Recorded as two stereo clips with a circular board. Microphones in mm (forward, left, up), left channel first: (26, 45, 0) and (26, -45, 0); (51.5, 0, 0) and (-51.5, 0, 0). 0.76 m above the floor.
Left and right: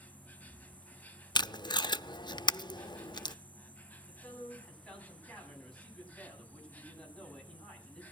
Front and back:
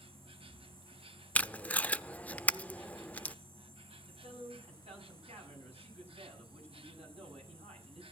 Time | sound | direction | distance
0.0 | an insect | 160° left | 1.3 m
1.4 | tape being pulled | 75° left | 0.5 m
4.1 | a man speaking | 165° left | 7.5 m